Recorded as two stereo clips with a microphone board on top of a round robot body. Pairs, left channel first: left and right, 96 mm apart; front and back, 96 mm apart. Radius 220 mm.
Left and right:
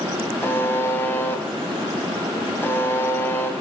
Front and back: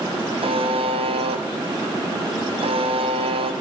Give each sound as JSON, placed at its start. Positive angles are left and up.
{"t": 0.4, "sound": "a buzzer", "azimuth_deg": 160, "distance_m": 2.5}